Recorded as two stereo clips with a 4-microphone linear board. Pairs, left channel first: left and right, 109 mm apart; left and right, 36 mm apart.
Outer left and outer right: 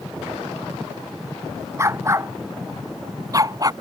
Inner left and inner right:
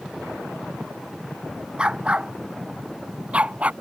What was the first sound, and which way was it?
A dog barking, 30° right (ahead or behind).